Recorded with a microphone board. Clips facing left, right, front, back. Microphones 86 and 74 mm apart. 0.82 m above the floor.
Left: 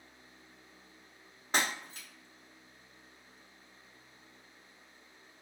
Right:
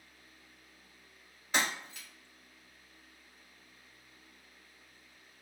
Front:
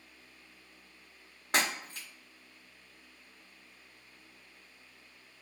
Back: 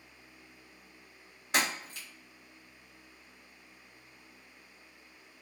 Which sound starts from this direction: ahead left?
Breaking glass, at 1.5 s.